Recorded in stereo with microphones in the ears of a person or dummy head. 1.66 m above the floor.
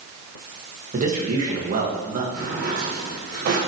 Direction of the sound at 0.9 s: 40° right (ahead or behind).